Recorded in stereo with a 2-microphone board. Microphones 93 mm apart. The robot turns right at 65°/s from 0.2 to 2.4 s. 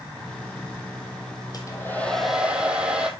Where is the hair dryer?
135° left, 1.8 m; by 3.1 s 170° right, 1.8 m.